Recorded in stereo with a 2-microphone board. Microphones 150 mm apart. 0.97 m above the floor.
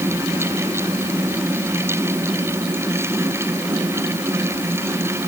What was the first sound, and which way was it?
Only background noise.